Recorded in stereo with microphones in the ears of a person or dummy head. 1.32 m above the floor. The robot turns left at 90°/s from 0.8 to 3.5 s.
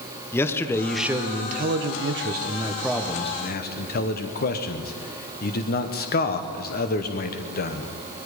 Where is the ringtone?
No ringtone in this recording.